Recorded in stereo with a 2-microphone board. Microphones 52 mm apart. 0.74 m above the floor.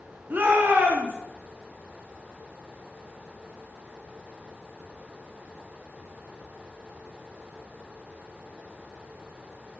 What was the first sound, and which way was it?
A shout, 40° right (ahead or behind).